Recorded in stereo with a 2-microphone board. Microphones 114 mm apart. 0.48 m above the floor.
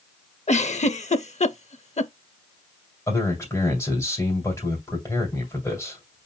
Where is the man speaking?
30° left (ahead or behind), 2 m.